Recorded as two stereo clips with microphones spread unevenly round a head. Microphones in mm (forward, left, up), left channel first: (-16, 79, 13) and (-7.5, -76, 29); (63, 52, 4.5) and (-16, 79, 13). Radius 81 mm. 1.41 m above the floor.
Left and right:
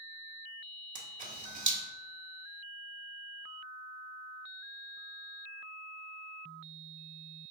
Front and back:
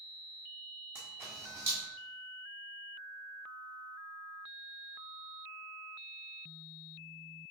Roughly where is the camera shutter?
Behind right.